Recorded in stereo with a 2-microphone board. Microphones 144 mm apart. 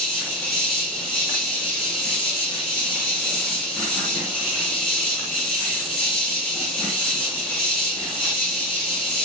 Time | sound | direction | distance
0.0 | an insect | 5° left (ahead or behind) | 2.5 m